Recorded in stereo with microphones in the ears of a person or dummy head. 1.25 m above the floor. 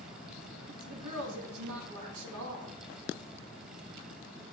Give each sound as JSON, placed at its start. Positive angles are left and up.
{"t": 0.7, "sound": "a woman speaking", "side_deg": -85, "distance_m": 1.7}